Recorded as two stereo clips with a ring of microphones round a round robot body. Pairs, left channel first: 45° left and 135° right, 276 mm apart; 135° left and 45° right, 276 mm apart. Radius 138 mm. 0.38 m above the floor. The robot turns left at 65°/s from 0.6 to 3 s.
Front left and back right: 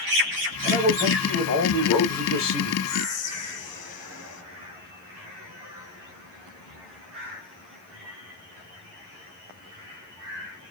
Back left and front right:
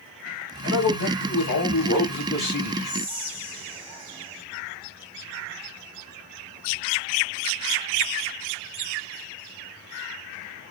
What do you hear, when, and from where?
0.6 s a man speaking: 160° left, 2.5 m; by 2.7 s 25° left, 2.5 m
2.8 s whispering: 30° left, 1.2 m; by 4.4 s 20° left, 1.2 m